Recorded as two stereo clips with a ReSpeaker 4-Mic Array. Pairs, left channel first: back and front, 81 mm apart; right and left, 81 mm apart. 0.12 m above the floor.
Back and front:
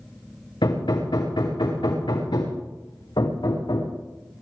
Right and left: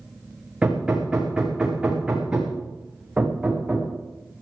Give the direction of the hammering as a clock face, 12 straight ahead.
6 o'clock.